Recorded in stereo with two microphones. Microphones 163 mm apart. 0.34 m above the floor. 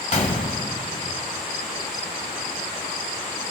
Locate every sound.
0.1 s a gunshot: 50° left (ahead or behind), 1.2 m